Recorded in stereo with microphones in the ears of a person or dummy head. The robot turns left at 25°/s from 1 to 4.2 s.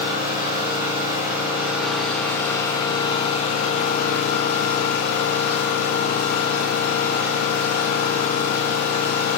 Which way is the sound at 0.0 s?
160° right.